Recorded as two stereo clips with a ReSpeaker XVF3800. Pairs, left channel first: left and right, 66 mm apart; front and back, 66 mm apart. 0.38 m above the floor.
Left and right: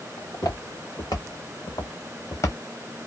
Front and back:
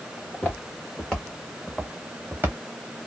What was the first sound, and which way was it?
Footsteps, 65° left.